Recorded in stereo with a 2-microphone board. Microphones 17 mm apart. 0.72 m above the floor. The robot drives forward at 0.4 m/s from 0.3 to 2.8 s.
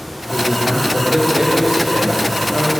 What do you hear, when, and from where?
0.3 s a man speaking: 50° right (ahead or behind), 2.5 m; by 2.7 s 60° right (ahead or behind), 2 m